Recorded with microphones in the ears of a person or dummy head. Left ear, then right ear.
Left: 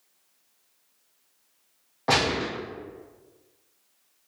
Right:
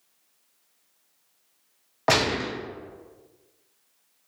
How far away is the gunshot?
About 0.7 m.